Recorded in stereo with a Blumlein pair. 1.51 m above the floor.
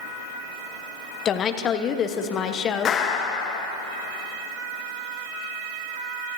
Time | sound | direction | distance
1.2 | a woman speaking | 25° left | 1.1 m
2.9 | a clap | 30° left | 1.3 m